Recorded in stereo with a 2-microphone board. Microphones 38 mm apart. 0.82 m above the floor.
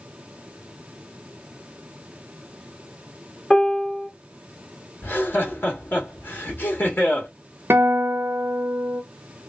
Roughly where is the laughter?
Left.